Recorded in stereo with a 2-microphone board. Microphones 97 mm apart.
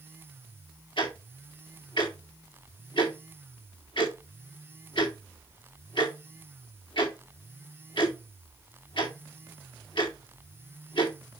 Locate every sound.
1.0 s ticking: 65° left (ahead or behind), 4 m